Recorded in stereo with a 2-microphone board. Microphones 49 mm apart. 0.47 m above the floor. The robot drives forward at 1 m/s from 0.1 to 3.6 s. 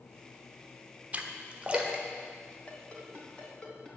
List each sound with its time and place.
1.1 s a splash: 30° right (ahead or behind), 0.9 m; by 2.0 s 20° right (ahead or behind), 1.5 m
2.7 s a ringtone: 30° left (ahead or behind), 2.0 m; by 3.9 s 20° left (ahead or behind), 3 m